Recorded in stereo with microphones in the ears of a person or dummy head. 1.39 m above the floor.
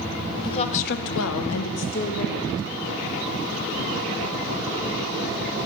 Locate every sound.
0.4 s a woman speaking: 30° left (ahead or behind), 1.3 m; by 2.7 s 40° left (ahead or behind), 2.5 m